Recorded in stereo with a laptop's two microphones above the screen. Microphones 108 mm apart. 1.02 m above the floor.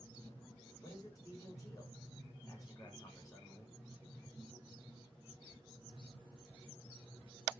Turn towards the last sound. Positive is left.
turn(degrees=30)  # may be behind; listen again after turning